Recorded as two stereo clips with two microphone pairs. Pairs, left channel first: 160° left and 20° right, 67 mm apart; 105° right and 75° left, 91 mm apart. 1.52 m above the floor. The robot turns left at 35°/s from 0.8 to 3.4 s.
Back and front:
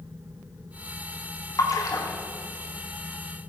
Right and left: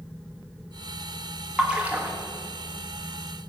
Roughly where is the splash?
Behind left.